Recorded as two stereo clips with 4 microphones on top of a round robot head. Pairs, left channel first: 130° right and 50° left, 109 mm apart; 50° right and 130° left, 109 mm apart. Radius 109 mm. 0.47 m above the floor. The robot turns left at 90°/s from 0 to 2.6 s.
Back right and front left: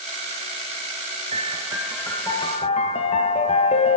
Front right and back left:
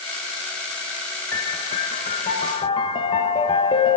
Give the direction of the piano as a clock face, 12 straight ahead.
11 o'clock.